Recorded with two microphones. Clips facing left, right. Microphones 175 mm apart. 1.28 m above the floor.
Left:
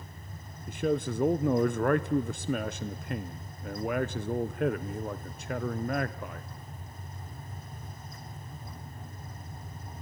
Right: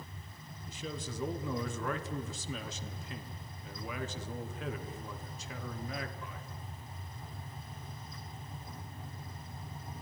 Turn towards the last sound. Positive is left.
turn(degrees=60)  # may be behind; listen again after turning